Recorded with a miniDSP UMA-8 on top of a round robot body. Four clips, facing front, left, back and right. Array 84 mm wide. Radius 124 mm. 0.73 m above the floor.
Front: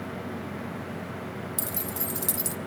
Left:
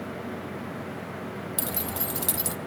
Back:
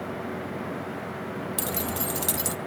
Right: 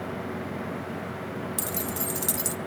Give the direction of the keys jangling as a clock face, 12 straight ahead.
7 o'clock.